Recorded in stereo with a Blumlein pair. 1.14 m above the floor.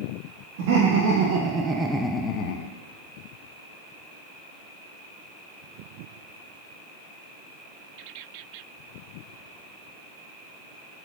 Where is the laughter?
50° right, 1.4 m; by 2.7 s 55° left, 0.7 m.